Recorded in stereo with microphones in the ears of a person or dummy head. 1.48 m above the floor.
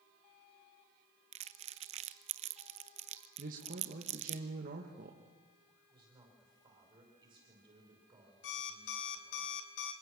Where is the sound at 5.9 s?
25° right (ahead or behind), 5 m.